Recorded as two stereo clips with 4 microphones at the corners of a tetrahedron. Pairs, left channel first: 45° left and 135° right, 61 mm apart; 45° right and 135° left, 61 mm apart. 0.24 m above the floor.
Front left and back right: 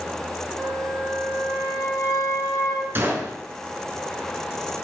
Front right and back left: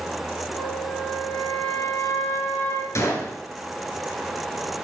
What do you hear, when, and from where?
0.6 s a flute: 20° left, 2.0 m
3.0 s a gunshot: 85° right, 1.0 m